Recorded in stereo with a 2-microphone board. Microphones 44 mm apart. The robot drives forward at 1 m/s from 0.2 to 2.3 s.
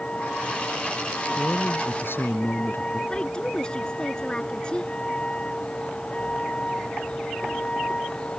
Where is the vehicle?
25° left (ahead or behind).